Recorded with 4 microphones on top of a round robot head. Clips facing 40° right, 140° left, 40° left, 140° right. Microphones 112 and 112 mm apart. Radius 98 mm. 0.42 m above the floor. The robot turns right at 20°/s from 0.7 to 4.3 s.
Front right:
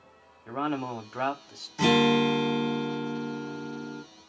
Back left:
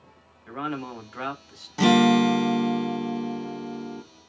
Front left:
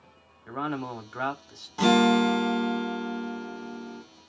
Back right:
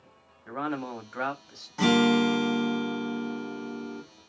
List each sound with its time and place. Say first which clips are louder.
0.5 s a man speaking: front right 2 dB, even; 45° right, 0.9 m; by 1.7 s 25° right, 0.9 m
1.8 s a guitar: back left 4 dB, front left 1 dB; 115° left, 0.8 m; by 4.0 s 160° left, 0.8 m